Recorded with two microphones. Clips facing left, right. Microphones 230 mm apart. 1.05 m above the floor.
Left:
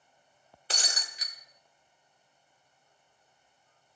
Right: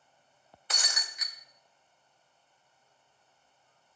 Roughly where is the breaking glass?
Left.